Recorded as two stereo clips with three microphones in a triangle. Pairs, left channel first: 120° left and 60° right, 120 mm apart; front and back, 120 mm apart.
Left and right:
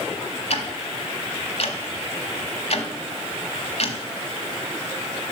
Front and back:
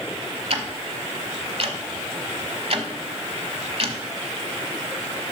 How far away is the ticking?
About 1.0 m.